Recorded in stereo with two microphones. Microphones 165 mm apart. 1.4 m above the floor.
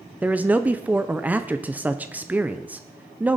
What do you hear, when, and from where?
0.2 s a man speaking: 10° right (ahead or behind), 0.6 m